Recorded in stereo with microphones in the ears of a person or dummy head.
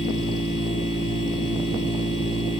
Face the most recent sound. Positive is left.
turn(degrees=30)  # may be behind; listen again after turning